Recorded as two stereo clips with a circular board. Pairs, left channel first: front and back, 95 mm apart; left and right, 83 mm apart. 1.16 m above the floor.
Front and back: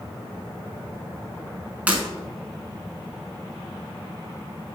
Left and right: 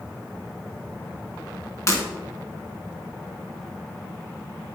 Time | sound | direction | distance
1.9 | breaking glass | 115° left | 1.4 m